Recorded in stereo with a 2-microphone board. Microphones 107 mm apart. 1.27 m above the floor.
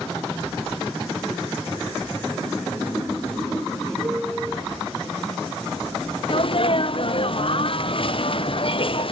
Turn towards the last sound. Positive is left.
turn(degrees=55)  # may be behind; listen again after turning